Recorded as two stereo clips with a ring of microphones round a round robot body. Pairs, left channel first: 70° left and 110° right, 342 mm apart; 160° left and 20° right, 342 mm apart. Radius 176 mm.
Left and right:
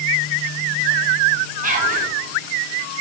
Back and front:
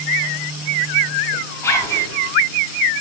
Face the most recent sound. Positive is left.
turn(degrees=-130)